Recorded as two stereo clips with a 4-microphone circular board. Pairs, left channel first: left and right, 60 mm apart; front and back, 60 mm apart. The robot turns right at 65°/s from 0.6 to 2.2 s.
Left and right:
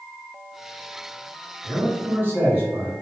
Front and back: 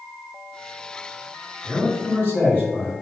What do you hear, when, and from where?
1.6 s a man speaking: 70° right, 2.0 m; by 2.9 s 35° right, 2.0 m